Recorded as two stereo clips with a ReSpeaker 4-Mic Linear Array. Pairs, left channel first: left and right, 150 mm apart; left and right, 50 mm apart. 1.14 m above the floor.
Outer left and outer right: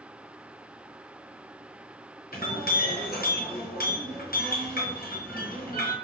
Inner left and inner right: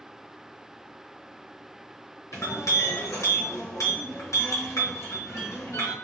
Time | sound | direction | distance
2.3 | a clink | 85° left | 0.7 m